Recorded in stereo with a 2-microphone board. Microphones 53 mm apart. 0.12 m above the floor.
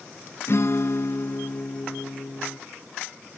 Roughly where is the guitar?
Left.